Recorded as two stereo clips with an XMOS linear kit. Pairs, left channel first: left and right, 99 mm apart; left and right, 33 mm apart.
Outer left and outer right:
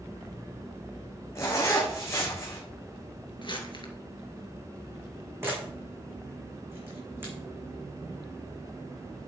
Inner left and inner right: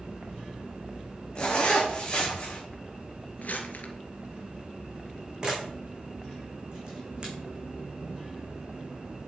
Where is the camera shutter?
25° right (ahead or behind), 4.5 m.